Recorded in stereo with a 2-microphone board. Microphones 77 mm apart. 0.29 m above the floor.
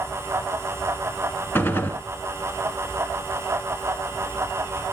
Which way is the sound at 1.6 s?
30° left (ahead or behind).